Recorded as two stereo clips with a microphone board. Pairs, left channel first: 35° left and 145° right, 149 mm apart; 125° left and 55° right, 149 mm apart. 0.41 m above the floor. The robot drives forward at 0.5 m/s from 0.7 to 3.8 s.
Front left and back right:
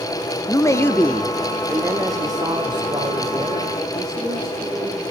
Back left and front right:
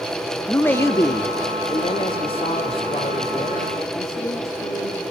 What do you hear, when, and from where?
0.5 s a man speaking: 70° left, 0.8 m; by 5.0 s 170° left, 1.6 m